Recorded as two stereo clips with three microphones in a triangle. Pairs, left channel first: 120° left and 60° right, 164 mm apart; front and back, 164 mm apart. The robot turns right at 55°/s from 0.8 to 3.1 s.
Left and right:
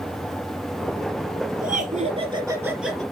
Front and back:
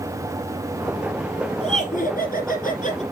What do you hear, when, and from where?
1.6 s laughter: 45° right, 3 m; by 3.0 s 35° left, 3 m